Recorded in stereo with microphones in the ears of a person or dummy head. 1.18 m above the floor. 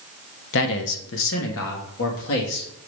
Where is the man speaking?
65° left (ahead or behind), 0.9 m; by 2.8 s 75° left (ahead or behind), 2 m.